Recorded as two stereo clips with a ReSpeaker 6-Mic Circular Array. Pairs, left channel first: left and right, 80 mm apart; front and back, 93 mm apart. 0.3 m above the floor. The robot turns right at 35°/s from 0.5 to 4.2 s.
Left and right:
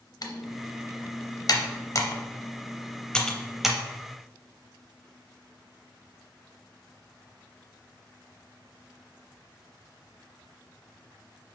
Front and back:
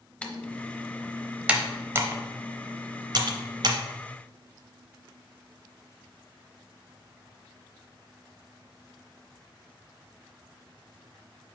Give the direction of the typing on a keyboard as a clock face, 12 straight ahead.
10 o'clock.